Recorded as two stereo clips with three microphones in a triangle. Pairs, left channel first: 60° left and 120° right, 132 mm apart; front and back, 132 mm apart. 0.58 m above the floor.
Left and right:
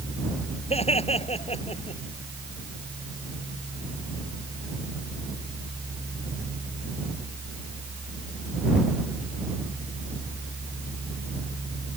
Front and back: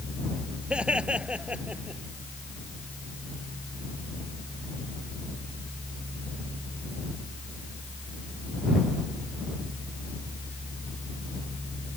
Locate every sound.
0.7 s laughter: 100° left